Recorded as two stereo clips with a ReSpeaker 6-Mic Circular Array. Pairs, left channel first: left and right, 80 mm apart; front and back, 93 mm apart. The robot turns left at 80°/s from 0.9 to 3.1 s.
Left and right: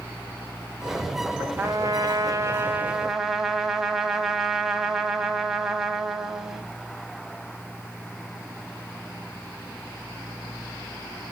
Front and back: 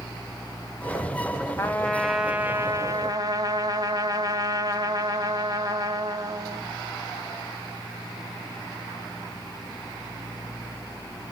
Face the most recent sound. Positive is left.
turn(degrees=-170)